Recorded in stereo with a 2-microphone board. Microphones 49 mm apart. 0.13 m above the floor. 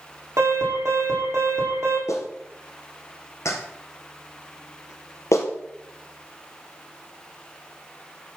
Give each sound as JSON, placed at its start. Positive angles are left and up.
{"t": 0.4, "sound": "an alarm", "side_deg": -65, "distance_m": 7.0}
{"t": 2.1, "sound": "a clap", "side_deg": 65, "distance_m": 3.5}